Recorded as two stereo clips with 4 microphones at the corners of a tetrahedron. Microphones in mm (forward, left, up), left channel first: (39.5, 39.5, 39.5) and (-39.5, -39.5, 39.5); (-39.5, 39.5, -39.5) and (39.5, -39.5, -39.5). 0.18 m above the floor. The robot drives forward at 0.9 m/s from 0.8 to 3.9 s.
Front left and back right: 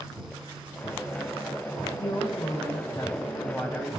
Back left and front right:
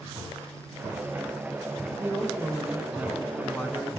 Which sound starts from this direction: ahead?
A woman speaking, at 2.0 s.